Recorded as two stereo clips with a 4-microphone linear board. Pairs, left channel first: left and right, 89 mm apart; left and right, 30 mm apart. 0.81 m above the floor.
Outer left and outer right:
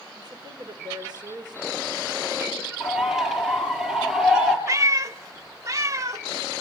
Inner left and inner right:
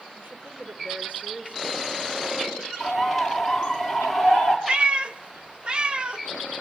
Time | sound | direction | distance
0.1 | a woman speaking | 55° right (ahead or behind) | 2.5 m
2.8 | a bird | 5° right (ahead or behind) | 4 m
4.7 | a cat meowing | 35° right (ahead or behind) | 1.0 m